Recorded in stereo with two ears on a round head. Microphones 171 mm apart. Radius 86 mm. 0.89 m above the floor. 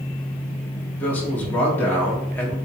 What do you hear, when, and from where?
1.0 s a man speaking: 10° left (ahead or behind), 1.9 m